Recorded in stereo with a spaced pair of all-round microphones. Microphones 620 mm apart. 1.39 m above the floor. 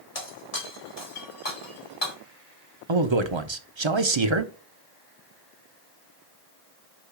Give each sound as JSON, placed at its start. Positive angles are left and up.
{"t": 0.1, "sound": "breaking glass", "side_deg": 70, "distance_m": 3.0}
{"t": 2.9, "sound": "a man speaking", "side_deg": -45, "distance_m": 0.9}